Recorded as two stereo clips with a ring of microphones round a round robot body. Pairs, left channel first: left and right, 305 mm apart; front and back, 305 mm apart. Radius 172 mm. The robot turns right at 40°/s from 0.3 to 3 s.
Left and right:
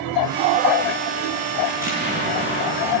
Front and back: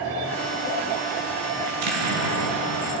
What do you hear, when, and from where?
1.7 s an explosion: straight behind, 8 m; by 3.0 s 125° right, 8 m